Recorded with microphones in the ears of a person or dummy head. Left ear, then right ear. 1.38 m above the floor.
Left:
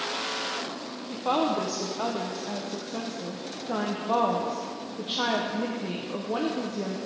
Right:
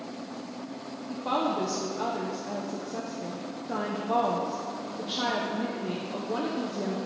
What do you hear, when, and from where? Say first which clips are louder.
1.1 s a woman speaking: left 2 dB; 15° left (ahead or behind), 0.5 m